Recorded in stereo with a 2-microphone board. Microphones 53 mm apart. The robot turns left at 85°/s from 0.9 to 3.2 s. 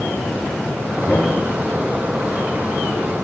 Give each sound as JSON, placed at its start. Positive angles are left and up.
{"t": 1.1, "sound": "knocking", "side_deg": 25, "distance_m": 5.0}